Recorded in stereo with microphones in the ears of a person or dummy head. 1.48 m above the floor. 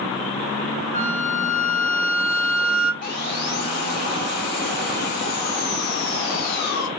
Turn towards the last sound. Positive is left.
turn(degrees=55)  # may be behind; listen again after turning